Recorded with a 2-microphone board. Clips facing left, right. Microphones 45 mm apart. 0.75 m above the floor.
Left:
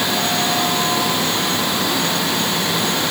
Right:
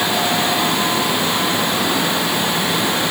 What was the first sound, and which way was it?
Only background noise.